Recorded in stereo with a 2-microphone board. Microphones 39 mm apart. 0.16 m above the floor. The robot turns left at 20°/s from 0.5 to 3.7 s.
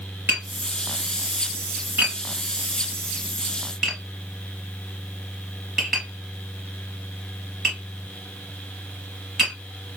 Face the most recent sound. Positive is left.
turn(degrees=-5)  # may be behind; listen again after turning